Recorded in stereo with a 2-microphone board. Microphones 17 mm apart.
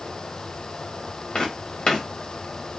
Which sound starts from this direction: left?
Footsteps, at 1.4 s.